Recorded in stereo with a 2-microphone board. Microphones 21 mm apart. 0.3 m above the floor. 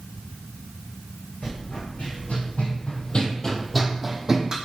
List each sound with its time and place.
1.4 s running footsteps: 80° left, 1.3 m; by 4.5 s 30° right (ahead or behind), 0.8 m